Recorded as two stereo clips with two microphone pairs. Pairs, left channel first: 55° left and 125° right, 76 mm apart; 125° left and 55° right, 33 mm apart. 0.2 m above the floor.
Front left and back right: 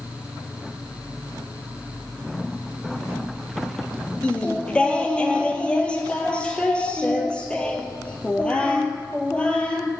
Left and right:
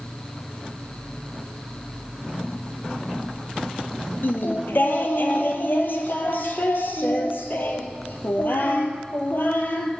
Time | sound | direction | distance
4.2 | singing | 130° left | 0.8 m